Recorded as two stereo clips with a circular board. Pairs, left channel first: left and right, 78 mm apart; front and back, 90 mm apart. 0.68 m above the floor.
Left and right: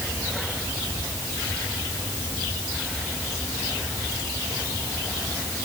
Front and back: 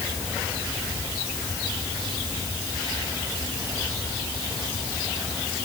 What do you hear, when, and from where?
Only background noise.